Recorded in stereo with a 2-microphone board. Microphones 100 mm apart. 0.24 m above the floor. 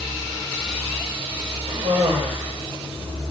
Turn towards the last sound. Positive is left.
turn(degrees=-80)